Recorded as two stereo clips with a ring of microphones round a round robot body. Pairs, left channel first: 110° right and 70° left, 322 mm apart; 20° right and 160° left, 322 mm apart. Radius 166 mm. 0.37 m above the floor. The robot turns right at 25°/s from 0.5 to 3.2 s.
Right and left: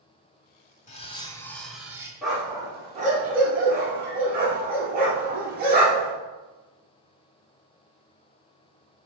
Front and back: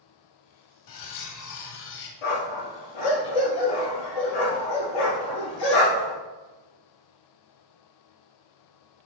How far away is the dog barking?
About 3 m.